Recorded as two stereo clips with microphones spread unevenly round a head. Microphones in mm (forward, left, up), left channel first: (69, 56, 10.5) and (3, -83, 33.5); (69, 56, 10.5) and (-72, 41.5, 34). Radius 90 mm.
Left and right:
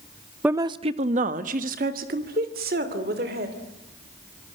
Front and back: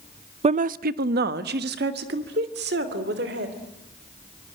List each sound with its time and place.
0.4 s a woman speaking: 155° left, 0.6 m; by 3.5 s 155° right, 3.5 m